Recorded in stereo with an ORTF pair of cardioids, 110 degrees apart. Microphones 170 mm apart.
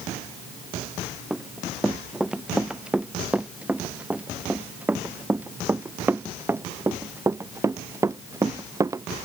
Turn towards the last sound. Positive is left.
turn(degrees=-20)